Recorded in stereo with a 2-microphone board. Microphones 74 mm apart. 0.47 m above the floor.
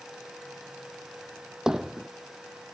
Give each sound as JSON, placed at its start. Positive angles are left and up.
{"t": 1.7, "sound": "hammering", "side_deg": -5}